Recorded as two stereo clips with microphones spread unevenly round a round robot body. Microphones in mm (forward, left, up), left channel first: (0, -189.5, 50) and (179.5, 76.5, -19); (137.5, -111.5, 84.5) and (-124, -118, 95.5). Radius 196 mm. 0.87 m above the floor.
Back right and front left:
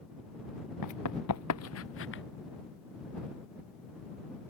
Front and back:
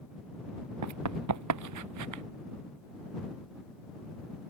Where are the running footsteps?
170° right; by 2.2 s 175° left.